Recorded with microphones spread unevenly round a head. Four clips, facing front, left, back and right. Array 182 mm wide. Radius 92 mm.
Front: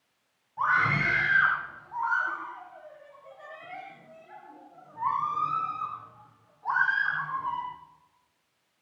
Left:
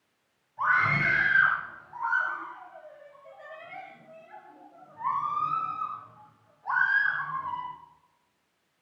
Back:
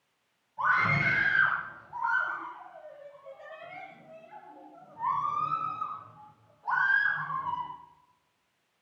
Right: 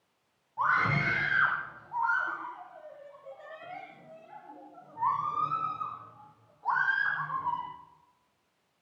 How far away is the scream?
About 5.5 m.